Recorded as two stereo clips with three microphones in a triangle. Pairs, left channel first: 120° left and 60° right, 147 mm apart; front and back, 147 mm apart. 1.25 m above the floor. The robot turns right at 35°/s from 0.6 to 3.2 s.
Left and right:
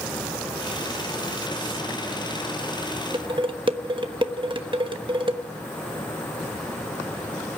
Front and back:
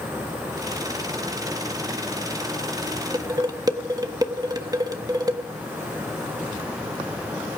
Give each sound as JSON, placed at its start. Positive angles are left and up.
{"t": 3.1, "sound": "dishes clattering", "azimuth_deg": -120, "distance_m": 1.2}